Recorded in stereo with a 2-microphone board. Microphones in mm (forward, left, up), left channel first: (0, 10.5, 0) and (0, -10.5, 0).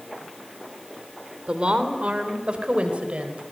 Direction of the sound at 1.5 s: 55° right (ahead or behind).